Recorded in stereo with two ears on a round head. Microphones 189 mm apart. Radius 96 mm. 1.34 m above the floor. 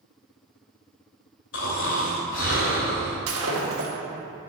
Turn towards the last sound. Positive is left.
turn(degrees=-75)  # may be behind; listen again after turning